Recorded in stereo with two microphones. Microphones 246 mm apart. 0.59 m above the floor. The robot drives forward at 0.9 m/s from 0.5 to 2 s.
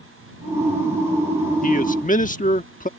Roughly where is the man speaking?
Left.